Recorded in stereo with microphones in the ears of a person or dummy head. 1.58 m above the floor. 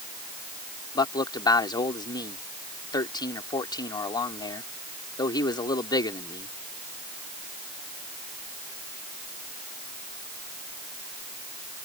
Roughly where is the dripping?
No dripping in this recording.